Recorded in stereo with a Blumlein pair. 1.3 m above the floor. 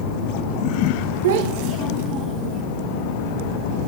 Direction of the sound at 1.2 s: 60° right.